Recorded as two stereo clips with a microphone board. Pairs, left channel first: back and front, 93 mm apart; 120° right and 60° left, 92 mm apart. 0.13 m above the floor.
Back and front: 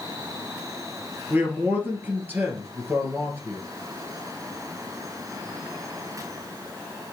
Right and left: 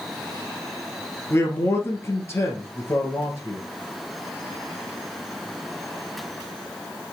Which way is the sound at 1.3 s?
65° right.